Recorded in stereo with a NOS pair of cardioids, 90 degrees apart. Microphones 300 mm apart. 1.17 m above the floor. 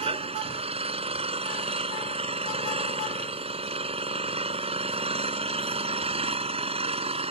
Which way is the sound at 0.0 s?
20° right.